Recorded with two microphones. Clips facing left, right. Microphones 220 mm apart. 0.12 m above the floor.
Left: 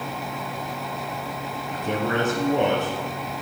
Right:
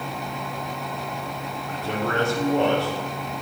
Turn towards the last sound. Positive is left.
turn(degrees=20)  # may be behind; listen again after turning